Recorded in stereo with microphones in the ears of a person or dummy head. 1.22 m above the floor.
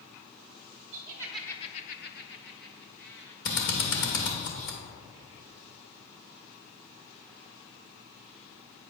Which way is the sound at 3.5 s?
55° left (ahead or behind).